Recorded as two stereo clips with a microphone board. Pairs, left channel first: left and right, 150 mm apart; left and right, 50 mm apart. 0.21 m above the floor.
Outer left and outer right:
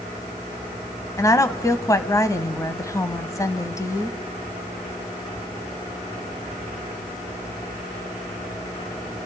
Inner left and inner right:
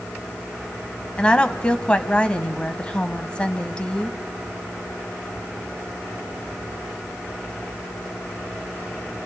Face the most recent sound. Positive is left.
turn(degrees=20)  # may be behind; listen again after turning